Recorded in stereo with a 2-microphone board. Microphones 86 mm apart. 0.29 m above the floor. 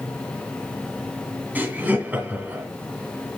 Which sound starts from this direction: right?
Laughter, at 1.6 s.